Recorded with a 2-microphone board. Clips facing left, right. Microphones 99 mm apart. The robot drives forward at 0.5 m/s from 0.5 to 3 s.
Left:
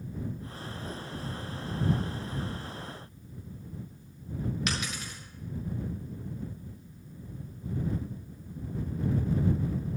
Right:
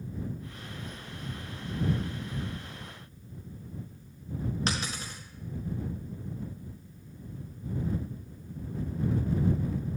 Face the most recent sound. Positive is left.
turn(degrees=-35)  # may be behind; listen again after turning